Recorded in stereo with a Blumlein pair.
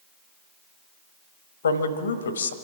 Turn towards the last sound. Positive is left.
turn(degrees=70)